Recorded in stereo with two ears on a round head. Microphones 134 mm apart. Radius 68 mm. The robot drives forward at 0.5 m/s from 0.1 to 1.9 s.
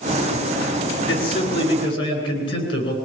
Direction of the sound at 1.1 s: 35° left (ahead or behind).